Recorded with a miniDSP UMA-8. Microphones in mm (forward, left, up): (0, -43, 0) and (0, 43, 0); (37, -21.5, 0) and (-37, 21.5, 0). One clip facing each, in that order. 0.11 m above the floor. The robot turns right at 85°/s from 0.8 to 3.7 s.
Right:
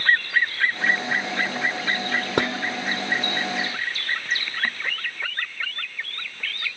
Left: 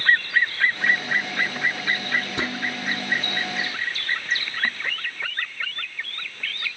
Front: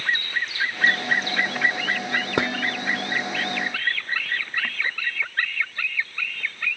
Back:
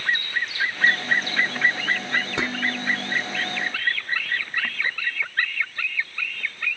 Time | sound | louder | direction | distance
2.4 | dishes clattering | right 4 dB, front 2 dB | 65° right | 2 m